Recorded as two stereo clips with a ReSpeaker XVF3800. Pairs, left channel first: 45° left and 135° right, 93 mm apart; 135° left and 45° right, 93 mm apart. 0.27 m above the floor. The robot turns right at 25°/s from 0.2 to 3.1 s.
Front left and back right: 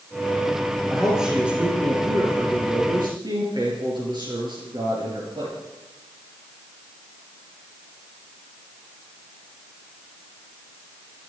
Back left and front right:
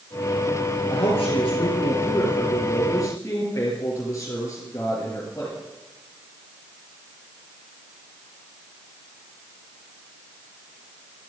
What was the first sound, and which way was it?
A man speaking, 135° left.